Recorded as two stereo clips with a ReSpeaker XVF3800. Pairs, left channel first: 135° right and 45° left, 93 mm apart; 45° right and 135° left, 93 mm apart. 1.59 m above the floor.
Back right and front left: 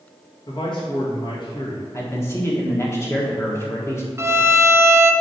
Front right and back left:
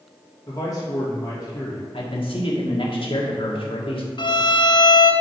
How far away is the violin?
About 0.5 m.